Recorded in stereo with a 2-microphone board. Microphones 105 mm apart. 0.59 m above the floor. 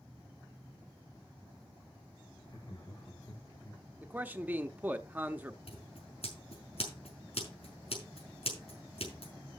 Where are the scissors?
85° left, 5.5 m.